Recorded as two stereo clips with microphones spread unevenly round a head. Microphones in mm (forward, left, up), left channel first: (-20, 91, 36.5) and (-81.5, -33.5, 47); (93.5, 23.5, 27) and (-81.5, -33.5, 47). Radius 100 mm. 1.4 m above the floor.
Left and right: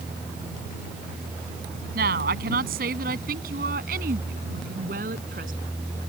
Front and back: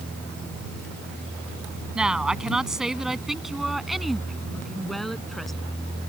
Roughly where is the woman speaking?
Right.